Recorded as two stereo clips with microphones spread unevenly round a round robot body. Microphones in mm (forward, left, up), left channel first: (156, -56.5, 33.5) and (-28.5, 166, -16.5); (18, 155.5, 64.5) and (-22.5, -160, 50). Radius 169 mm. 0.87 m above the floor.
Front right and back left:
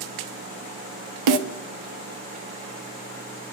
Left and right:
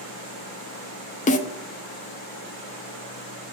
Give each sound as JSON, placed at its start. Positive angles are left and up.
{"t": 1.3, "sound": "a snare drum", "azimuth_deg": 155, "distance_m": 0.6}